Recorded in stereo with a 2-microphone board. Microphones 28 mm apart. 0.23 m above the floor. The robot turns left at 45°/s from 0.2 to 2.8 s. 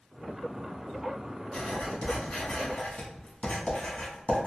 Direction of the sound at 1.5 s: 25° left (ahead or behind).